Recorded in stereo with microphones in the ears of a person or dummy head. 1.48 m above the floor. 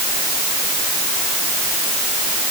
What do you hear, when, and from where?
Only background noise.